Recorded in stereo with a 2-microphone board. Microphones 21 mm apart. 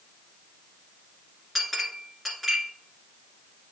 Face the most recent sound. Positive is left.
turn(degrees=5)  # may be behind; listen again after turning